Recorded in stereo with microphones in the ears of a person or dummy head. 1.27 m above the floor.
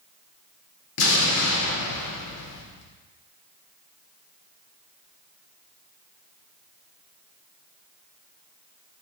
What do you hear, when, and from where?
1.0 s an explosion: 75° left (ahead or behind), 0.7 m